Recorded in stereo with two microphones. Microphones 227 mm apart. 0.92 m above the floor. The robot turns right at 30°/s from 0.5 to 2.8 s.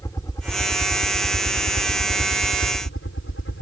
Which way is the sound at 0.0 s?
15° left.